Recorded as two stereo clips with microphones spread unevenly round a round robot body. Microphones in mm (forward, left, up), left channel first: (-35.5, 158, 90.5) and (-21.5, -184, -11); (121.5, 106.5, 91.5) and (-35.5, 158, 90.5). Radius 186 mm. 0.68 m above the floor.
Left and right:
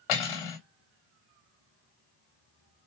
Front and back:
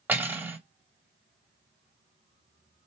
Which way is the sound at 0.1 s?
80° left.